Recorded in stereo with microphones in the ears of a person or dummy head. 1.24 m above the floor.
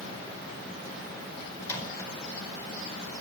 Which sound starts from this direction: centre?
A microwave, at 1.6 s.